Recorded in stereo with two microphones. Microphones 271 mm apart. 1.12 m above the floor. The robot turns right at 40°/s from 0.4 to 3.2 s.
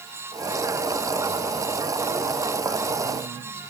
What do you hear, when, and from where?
Only background noise.